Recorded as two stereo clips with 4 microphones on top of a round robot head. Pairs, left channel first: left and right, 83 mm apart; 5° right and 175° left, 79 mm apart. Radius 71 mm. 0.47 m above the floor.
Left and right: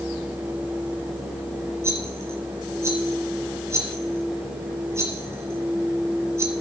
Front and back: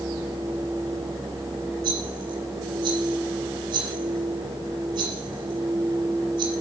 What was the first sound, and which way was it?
A rattle, 145° right.